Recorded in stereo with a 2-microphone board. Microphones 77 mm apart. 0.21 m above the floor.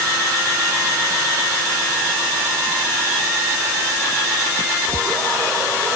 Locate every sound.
Only background noise.